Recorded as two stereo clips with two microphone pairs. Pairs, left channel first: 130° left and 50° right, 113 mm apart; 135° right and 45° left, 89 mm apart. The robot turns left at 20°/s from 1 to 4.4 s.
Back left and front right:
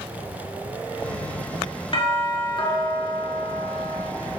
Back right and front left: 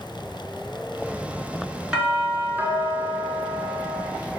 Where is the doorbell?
120° left, 3 m; by 4.1 s 80° left, 3 m.